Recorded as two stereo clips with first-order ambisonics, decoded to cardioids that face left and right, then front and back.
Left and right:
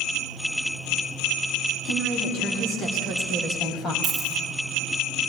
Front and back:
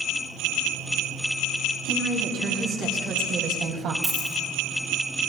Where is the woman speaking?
140° left, 4 m; by 3.9 s 145° left, 2.5 m.